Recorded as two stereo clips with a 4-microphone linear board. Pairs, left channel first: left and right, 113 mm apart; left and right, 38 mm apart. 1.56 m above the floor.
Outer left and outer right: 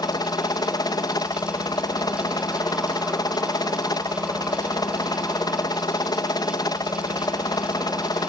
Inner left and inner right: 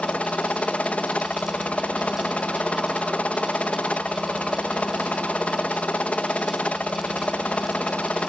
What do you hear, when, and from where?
0.0 s a helicopter: 35° left (ahead or behind)